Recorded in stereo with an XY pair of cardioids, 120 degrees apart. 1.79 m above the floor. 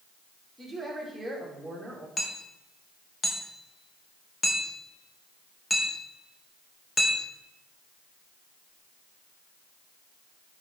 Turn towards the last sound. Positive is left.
turn(degrees=20)